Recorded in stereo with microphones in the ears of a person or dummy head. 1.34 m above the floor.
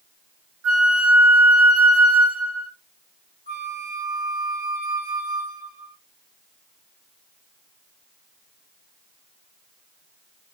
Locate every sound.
0.6 s a flute: 70° right (ahead or behind), 5.5 m
3.5 s a flute: 45° right (ahead or behind), 4.5 m